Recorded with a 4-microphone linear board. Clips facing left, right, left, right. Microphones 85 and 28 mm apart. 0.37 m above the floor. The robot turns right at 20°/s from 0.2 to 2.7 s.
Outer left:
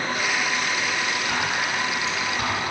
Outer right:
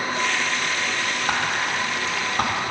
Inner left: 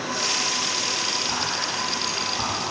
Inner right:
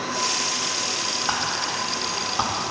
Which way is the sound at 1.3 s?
50° right (ahead or behind).